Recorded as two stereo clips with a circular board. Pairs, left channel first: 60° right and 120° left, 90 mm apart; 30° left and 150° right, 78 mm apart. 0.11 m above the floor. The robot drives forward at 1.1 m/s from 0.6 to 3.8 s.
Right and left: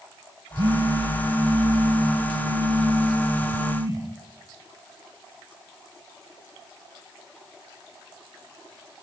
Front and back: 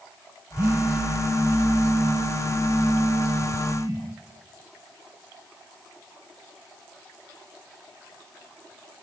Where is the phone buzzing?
145° left, 2.5 m; by 4.0 s 165° left, 6 m.